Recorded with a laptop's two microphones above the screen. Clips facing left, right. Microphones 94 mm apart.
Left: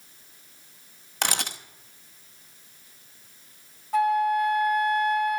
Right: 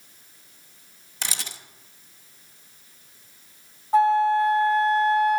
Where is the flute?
30° right (ahead or behind), 1.0 m.